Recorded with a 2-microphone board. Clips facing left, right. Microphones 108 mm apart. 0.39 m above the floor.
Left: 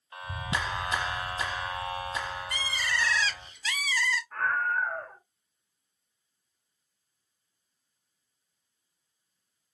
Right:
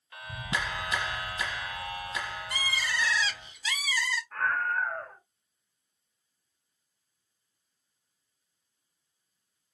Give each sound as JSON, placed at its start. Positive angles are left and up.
{"t": 0.1, "sound": "a clap", "side_deg": 25, "distance_m": 0.9}
{"t": 2.5, "sound": "a bird", "side_deg": -5, "distance_m": 0.5}
{"t": 4.3, "sound": "a scream", "side_deg": 5, "distance_m": 0.9}